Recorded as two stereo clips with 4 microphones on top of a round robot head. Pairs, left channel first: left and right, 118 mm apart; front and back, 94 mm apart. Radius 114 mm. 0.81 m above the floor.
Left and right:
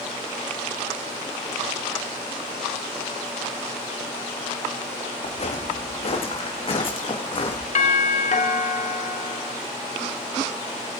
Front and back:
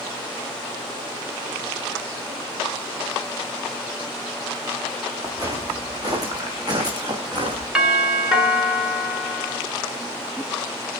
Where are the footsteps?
125° left, 5.5 m; by 7.7 s 140° left, 5 m.